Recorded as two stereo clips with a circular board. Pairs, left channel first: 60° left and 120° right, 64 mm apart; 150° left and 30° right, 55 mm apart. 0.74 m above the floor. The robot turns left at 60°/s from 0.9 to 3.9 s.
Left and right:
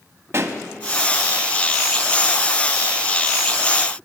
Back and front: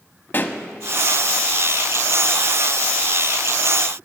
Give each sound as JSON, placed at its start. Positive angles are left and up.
{"t": 0.3, "sound": "a pop", "azimuth_deg": -165, "distance_m": 0.8}